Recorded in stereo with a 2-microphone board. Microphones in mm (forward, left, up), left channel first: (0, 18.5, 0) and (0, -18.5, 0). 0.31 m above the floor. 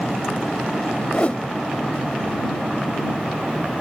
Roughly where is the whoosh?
Left.